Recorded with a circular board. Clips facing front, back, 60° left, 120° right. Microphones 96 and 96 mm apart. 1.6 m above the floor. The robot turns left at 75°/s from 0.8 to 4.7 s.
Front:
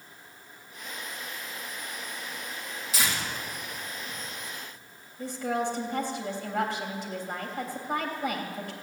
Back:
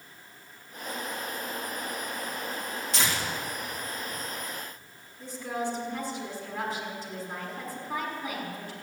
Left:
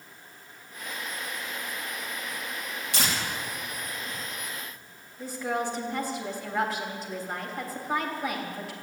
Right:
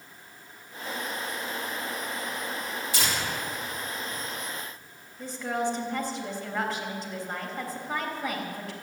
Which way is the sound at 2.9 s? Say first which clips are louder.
Even, left 1 dB; 85° left.